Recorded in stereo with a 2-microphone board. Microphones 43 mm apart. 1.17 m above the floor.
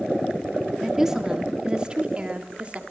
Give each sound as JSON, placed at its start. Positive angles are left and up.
{"t": 0.8, "sound": "a woman speaking", "side_deg": -10, "distance_m": 3.0}